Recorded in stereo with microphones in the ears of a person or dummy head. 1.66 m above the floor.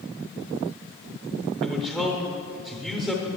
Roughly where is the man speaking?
Centre.